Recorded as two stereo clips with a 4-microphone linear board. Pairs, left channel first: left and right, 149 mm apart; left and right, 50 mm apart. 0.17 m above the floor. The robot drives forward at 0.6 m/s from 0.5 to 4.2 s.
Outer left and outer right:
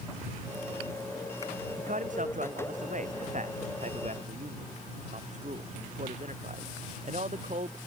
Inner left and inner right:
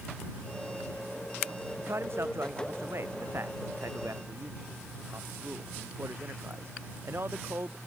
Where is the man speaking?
60° right (ahead or behind); by 7.8 s 50° right (ahead or behind).